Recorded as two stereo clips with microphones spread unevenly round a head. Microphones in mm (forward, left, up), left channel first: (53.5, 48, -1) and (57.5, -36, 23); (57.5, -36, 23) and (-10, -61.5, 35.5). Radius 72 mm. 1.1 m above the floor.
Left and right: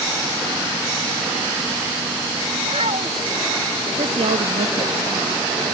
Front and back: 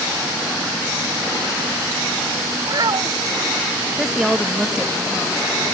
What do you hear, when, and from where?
2.6 s a child speaking: 125° right
4.0 s a woman speaking: 75° right